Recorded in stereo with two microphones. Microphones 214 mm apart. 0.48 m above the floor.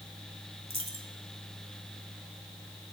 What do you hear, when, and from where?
0.7 s a dropped coin: 85° right, 1.9 m